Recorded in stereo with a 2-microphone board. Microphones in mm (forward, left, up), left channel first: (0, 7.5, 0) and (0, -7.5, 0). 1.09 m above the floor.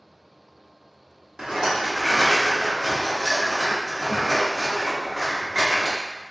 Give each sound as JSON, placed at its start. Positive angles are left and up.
{"t": 1.4, "sound": "a rattle", "side_deg": -45, "distance_m": 1.0}